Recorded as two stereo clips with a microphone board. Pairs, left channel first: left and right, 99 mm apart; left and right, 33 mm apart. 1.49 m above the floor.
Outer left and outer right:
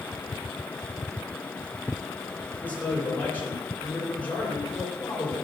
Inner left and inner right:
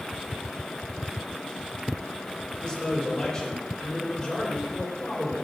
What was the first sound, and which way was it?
A man speaking, 20° left (ahead or behind).